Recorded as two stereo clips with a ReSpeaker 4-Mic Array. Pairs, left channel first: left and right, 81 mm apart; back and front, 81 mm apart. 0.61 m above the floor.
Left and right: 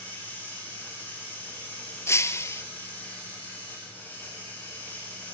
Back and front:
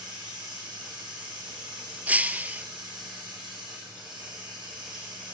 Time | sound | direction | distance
0.0 | running water | 25° left | 8.5 m
2.1 | breaking glass | 60° left | 0.7 m